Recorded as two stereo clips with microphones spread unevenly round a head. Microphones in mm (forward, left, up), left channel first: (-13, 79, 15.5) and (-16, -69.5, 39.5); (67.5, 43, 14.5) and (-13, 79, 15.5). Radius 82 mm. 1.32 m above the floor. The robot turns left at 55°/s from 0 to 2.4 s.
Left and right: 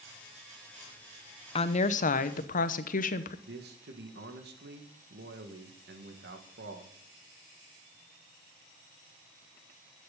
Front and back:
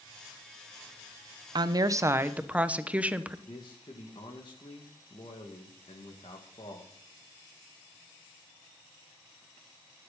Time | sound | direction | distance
1.6 | a woman speaking | 130° left | 1.0 m
3.5 | a man speaking | 75° right | 1.8 m